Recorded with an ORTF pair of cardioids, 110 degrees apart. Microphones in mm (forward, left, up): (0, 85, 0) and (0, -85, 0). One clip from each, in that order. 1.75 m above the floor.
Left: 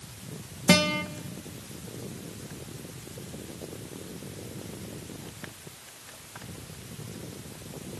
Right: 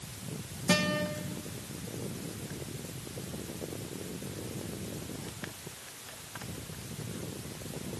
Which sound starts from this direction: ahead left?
A guitar, at 0.7 s.